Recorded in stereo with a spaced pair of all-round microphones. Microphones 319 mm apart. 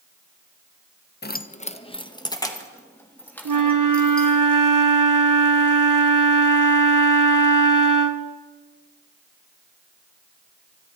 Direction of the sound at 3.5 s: 75° right (ahead or behind).